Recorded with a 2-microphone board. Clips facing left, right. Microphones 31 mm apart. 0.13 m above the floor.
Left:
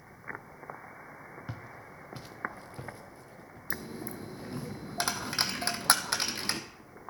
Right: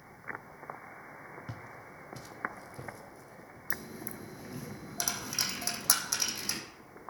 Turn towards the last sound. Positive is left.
turn(degrees=50)  # may be behind; listen again after turning